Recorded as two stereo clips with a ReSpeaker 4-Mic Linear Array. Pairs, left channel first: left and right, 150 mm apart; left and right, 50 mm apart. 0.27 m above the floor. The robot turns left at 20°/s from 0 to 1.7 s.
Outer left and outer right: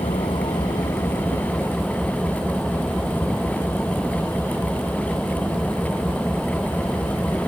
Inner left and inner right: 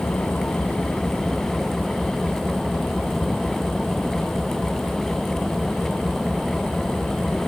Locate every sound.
0.0 s an engine running: 40° left; by 7.5 s 5° left